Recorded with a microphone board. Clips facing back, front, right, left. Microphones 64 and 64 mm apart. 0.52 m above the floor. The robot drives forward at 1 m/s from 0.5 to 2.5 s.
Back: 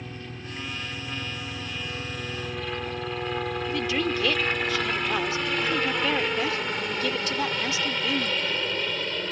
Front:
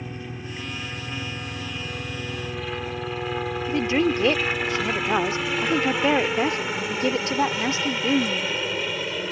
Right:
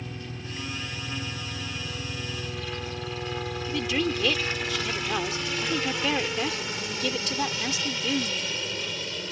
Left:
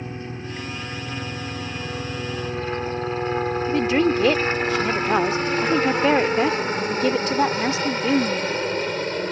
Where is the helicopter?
70° left; by 9.3 s 80° left.